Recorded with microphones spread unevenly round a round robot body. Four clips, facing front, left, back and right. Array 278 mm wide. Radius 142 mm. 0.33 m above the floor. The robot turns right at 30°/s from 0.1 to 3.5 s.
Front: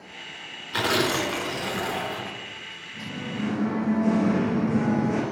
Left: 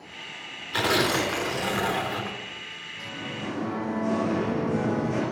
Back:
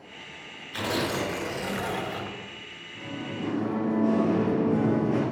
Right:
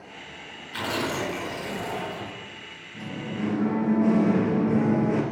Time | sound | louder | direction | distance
0.7 | tearing paper | left 4 dB, front 4 dB | 30° left | 3 m
2.9 | singing | right 4 dB, front 2 dB | 45° right | 4 m